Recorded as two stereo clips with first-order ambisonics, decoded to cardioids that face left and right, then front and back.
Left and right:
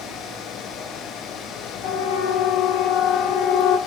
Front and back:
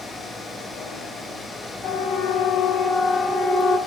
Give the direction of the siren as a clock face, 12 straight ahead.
10 o'clock.